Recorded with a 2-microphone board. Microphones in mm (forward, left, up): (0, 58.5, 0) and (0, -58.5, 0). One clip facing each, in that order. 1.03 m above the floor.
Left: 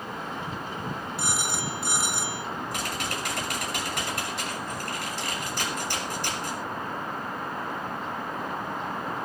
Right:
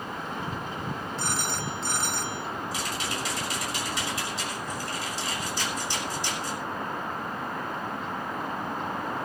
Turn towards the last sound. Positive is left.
turn(degrees=55)  # may be behind; listen again after turning